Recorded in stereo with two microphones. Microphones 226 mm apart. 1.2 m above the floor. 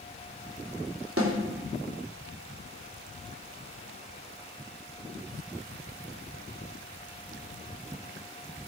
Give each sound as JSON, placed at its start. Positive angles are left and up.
{"t": 1.2, "sound": "a snare drum", "side_deg": -75, "distance_m": 2.5}